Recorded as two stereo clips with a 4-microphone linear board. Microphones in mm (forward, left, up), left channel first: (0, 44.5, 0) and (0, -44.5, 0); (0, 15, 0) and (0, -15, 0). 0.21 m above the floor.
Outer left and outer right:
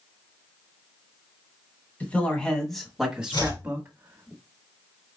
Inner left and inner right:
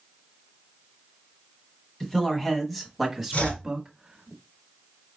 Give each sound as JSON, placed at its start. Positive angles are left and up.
{"t": 2.0, "sound": "a man speaking", "side_deg": 20, "distance_m": 1.7}
{"t": 3.3, "sound": "chopping", "side_deg": 60, "distance_m": 2.0}